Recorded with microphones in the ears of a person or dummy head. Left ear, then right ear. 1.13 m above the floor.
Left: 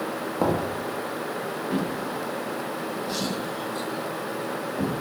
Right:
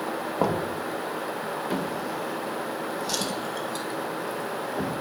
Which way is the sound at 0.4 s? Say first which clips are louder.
Left 1 dB; 80° right.